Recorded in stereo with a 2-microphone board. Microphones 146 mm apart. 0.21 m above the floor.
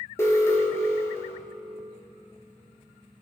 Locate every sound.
0.2 s an alarm: 20° left (ahead or behind), 2 m